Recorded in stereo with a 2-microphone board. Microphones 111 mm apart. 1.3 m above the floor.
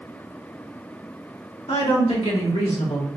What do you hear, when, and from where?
1.7 s a woman speaking: 65° left (ahead or behind), 2 m; by 3.1 s 90° left, 1.6 m